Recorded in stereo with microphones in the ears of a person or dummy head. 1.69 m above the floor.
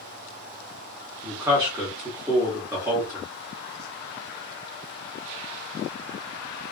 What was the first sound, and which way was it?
A man speaking, 20° right (ahead or behind).